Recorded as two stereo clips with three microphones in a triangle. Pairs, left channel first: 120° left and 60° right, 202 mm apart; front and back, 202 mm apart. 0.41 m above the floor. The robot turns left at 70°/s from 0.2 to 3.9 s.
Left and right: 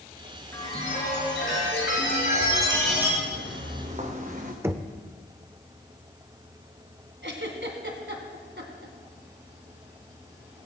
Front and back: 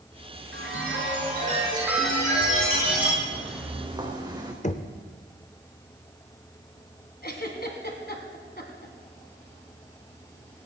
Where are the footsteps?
70° right, 3 m; by 4.5 s 105° right, 2.0 m.